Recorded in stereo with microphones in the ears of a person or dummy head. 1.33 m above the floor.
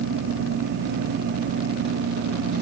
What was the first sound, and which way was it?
Only background noise.